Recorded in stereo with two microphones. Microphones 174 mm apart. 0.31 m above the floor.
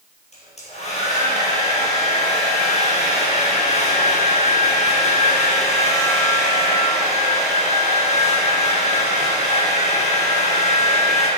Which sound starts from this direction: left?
A hair dryer, at 0.3 s.